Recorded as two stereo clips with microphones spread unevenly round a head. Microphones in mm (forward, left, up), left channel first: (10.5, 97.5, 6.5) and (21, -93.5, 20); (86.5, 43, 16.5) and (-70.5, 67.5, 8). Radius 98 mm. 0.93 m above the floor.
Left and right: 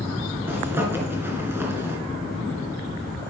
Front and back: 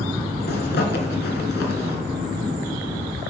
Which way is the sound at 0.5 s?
10° right.